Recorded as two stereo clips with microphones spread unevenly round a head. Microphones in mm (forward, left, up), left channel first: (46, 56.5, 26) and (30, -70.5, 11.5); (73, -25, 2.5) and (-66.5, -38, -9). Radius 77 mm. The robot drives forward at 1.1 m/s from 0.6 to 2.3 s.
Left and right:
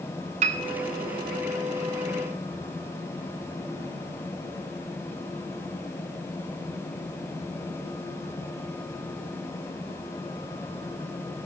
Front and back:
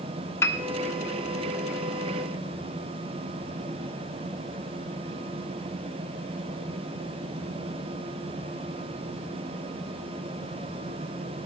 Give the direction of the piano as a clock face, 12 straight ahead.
2 o'clock.